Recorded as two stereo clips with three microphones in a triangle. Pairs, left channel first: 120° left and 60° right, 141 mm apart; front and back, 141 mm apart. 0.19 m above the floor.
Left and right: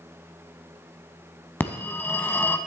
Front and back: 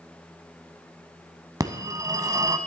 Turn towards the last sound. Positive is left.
turn(degrees=175)